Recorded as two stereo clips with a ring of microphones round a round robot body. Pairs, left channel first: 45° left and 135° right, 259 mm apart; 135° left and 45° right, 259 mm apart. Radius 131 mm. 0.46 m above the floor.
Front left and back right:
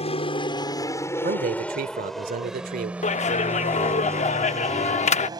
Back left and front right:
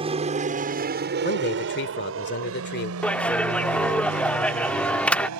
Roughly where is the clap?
Ahead left.